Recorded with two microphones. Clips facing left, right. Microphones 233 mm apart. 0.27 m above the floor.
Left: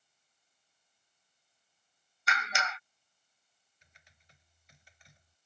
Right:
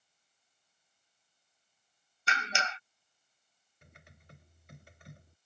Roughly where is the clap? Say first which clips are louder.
Even; right.